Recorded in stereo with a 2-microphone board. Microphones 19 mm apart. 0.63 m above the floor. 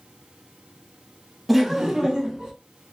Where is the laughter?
10° right (ahead or behind), 0.5 m; by 2.5 s 45° right (ahead or behind), 1.0 m.